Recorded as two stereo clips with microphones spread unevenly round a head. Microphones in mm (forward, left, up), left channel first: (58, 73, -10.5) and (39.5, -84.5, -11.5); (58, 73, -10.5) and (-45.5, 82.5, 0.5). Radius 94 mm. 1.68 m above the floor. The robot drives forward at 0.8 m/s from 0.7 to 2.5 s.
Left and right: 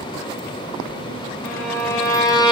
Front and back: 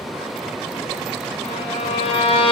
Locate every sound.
1.4 s a violin: 10° left, 1.6 m; by 2.5 s 20° left, 0.8 m